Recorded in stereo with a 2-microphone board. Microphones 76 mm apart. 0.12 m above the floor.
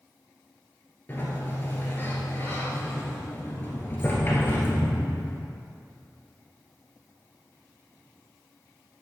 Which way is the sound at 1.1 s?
30° left (ahead or behind).